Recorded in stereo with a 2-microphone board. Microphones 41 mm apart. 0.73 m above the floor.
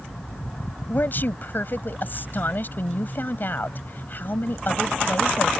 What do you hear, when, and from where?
0.9 s a woman speaking: 55° left (ahead or behind)